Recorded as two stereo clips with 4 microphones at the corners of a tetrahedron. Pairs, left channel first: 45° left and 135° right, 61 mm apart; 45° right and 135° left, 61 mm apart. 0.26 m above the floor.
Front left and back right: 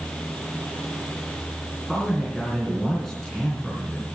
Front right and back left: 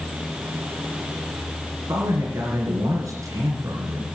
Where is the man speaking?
130° left, 4 m.